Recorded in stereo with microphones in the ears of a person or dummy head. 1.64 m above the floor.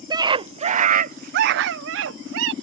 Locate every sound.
0.1 s a scream: 20° right (ahead or behind); by 2.5 s 80° right